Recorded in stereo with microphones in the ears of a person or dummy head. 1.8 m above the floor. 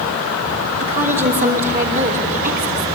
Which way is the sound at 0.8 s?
45° right (ahead or behind).